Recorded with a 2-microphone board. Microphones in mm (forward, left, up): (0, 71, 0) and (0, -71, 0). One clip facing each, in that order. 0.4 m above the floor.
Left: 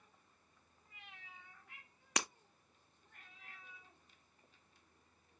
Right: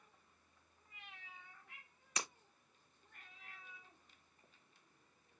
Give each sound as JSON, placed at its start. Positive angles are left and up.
{"t": 2.2, "sound": "breaking glass", "side_deg": 70, "distance_m": 0.9}